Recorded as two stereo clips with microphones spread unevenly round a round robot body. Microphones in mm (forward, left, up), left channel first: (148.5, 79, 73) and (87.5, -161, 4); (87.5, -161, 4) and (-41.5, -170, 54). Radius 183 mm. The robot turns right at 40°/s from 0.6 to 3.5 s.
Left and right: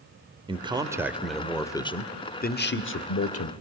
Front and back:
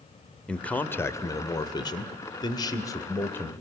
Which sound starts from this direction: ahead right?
A man speaking, at 0.5 s.